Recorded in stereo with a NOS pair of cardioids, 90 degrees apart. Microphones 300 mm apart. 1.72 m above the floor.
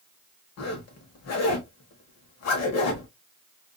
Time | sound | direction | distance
0.6 | a zipper | 60° left | 1.2 m